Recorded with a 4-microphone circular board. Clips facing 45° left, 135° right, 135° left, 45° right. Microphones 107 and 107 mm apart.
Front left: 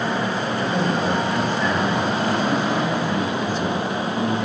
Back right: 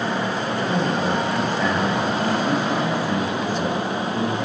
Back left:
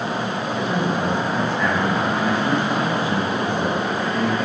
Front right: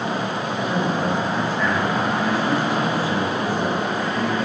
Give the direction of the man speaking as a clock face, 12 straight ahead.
5 o'clock.